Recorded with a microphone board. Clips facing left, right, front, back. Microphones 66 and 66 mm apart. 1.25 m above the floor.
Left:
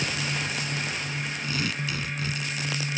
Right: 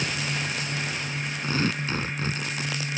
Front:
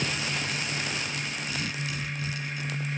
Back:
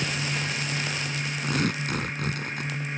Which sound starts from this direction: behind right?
Tearing paper, at 1.4 s.